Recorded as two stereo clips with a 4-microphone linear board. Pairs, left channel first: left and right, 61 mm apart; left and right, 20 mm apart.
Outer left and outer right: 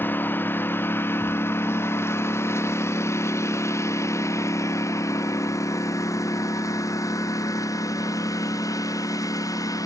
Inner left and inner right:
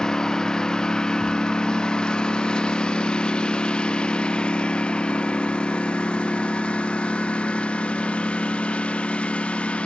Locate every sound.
0.0 s a lawn mower: 30° left (ahead or behind); by 9.9 s 65° left (ahead or behind)